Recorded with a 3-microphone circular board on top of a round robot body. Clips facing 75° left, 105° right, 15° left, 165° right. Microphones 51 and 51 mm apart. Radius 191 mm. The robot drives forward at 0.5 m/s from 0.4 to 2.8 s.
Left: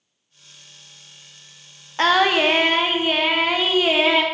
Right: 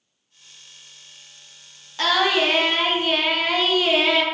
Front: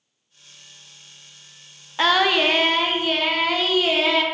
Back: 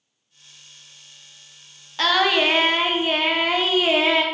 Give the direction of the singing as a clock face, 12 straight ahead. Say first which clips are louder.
Left 3 dB, front 1 dB; 10 o'clock.